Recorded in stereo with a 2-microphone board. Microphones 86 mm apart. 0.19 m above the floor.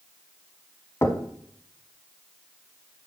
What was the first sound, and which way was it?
Knocking, 30° left (ahead or behind).